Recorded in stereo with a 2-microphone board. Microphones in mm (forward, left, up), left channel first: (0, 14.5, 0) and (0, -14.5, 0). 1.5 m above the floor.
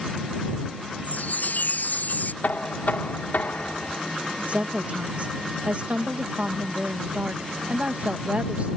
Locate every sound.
1.0 s a chime: 70° left (ahead or behind)
2.4 s knocking: 75° left (ahead or behind)
4.5 s a woman speaking: 45° right (ahead or behind)